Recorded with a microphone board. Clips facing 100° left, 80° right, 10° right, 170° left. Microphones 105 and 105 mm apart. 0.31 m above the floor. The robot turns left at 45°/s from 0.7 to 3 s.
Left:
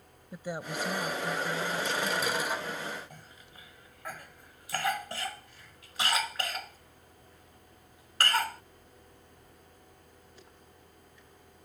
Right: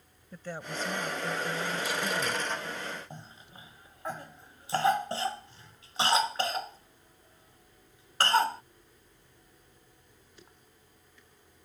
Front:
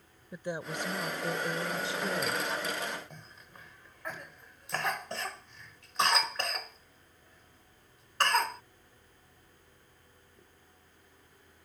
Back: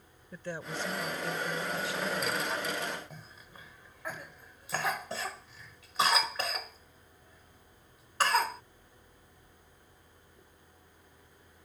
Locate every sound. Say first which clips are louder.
0.3 s a woman speaking: left 2 dB, front 2 dB; 40° left; by 2.4 s 35° right
3.1 s a cough: right 4 dB, back 1 dB; 105° right